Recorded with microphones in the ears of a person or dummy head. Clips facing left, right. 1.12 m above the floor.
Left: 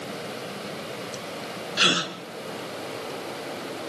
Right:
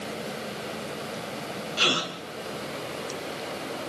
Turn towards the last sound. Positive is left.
turn(degrees=20)  # may be behind; listen again after turning